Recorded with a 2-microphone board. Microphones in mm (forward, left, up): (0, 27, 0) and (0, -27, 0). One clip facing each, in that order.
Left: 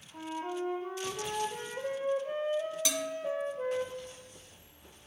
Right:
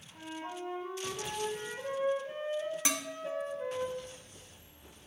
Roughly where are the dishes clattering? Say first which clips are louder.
Left 1 dB; right.